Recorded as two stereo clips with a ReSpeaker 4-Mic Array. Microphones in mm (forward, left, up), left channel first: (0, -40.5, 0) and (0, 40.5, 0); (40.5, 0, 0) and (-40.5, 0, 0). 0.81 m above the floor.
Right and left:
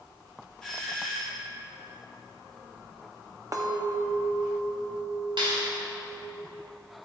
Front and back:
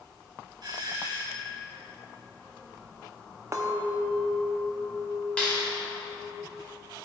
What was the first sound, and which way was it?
A doorbell, 175° right.